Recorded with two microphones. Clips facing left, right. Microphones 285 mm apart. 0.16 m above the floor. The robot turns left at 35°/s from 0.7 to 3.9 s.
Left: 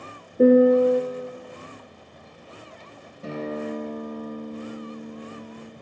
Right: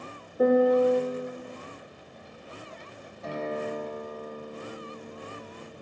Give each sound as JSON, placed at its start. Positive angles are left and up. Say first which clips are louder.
{"t": 0.4, "sound": "a piano", "louder": "left 6 dB", "side_deg": 35, "distance_m": 0.5}
{"t": 3.2, "sound": "a guitar", "louder": "left 3 dB", "side_deg": 35, "distance_m": 3.0}